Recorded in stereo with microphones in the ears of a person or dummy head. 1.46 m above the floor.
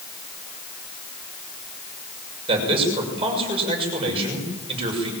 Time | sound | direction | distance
2.5 | a man speaking | 30° right (ahead or behind) | 6.5 m